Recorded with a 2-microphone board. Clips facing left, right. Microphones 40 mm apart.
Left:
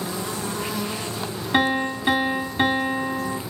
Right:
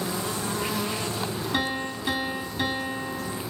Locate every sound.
1.5 s a piano: 45° left (ahead or behind), 1.1 m